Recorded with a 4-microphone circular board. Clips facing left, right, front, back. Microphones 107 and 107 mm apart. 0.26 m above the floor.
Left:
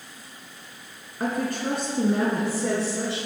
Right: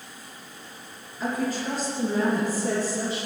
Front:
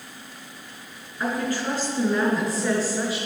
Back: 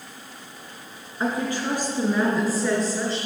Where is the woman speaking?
115° left, 3 m; by 3.3 s 80° left, 3.5 m.